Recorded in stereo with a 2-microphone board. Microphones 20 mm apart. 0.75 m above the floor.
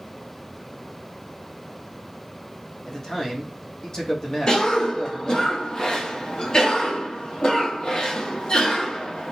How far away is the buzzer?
I don't hear a buzzer.